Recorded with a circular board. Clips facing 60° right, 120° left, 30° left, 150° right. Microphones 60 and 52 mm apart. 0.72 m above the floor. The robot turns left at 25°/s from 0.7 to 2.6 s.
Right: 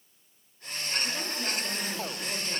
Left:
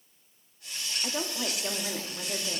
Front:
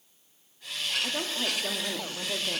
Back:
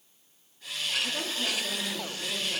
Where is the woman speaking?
90° left, 1.1 m; by 2.6 s 55° left, 1.1 m.